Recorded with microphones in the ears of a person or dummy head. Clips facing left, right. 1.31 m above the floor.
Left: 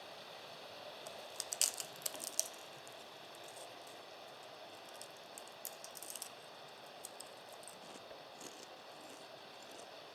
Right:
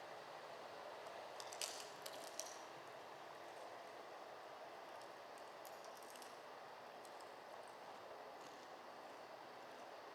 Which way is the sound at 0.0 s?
45° left (ahead or behind).